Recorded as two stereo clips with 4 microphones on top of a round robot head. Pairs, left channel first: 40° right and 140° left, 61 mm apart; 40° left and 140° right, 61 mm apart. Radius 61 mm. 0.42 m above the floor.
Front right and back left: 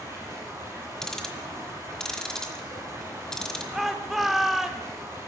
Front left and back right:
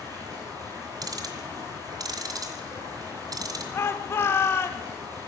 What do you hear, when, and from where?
0.0 s running water: 170° right, 5.5 m
1.0 s ticking: 125° right, 1.4 m
3.7 s a shout: 55° left, 1.2 m